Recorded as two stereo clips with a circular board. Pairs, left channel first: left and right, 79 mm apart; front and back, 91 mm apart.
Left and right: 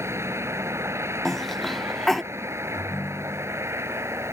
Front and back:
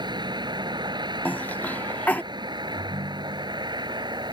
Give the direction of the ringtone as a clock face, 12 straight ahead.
7 o'clock.